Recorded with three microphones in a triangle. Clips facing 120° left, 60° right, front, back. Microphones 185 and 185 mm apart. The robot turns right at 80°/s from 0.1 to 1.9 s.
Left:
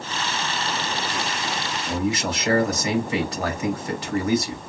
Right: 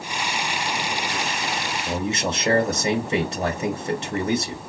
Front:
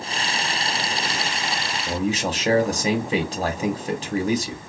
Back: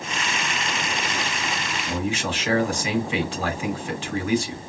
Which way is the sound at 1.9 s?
15° right.